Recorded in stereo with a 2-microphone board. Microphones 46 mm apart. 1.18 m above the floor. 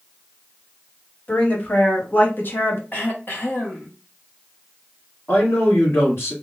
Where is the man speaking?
80° left, 2 m.